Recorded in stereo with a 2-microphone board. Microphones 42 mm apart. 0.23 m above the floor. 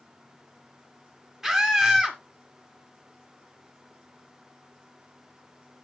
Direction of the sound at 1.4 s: 10° right (ahead or behind).